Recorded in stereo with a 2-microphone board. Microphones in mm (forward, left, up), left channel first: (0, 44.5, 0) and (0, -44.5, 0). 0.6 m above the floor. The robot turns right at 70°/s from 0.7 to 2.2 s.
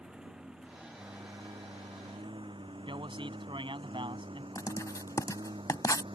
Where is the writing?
40° left (ahead or behind).